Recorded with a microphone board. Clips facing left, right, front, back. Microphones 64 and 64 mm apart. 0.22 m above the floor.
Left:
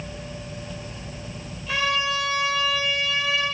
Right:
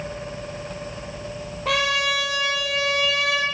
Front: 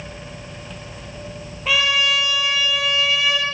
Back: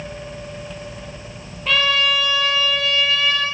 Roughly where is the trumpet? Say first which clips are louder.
Right 2 dB, back 1 dB; right.